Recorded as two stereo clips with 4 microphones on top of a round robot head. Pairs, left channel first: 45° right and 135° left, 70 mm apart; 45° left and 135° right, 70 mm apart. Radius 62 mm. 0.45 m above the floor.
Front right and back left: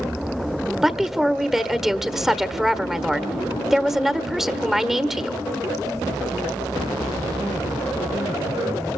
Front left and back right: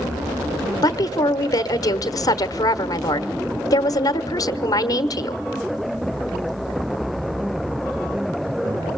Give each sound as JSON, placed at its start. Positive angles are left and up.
{"t": 0.8, "sound": "a woman speaking", "azimuth_deg": 50, "distance_m": 1.3}